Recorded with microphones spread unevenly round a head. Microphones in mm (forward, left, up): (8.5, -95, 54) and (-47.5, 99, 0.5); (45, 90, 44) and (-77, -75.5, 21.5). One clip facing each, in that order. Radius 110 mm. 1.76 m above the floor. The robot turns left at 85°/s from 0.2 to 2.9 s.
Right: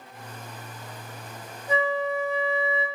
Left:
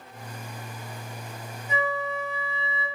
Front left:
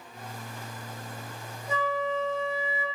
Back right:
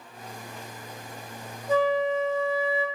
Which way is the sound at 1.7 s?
30° right.